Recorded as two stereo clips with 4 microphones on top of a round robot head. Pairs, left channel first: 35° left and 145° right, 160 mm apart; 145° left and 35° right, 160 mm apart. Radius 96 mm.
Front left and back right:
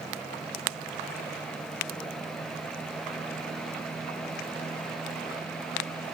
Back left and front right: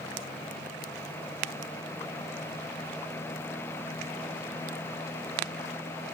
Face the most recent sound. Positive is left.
No sound to turn to.